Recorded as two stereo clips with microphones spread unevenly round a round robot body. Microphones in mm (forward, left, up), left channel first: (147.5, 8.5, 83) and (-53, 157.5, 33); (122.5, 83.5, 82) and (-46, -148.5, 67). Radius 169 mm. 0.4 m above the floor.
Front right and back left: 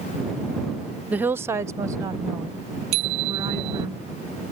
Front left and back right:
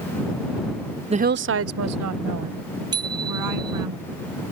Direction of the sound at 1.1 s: 165° right.